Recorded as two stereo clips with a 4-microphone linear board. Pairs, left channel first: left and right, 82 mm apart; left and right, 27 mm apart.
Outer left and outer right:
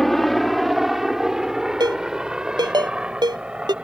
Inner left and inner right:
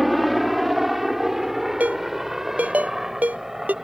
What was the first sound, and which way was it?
A helicopter, 5° left (ahead or behind).